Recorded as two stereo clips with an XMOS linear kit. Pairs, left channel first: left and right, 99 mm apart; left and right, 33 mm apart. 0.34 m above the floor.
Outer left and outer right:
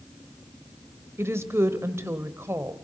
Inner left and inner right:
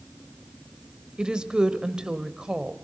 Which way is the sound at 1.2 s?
25° right (ahead or behind).